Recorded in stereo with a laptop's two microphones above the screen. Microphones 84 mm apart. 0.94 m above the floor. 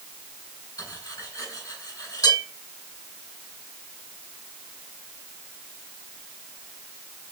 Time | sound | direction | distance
0.8 | cutlery clinking | 50° left (ahead or behind) | 3 m